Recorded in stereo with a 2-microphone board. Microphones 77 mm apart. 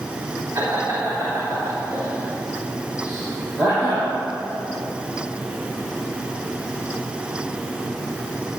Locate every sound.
0.6 s laughter: 55° right (ahead or behind), 2 m; by 4.1 s 20° right (ahead or behind), 6 m